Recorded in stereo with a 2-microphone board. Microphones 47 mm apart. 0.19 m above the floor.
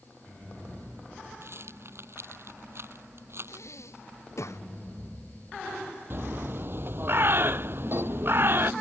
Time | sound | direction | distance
1.4 | a rattle | 60° right (ahead or behind) | ?
3.5 | breathing | 75° left (ahead or behind) | ?
6.1 | a bird | 50° right (ahead or behind) | ?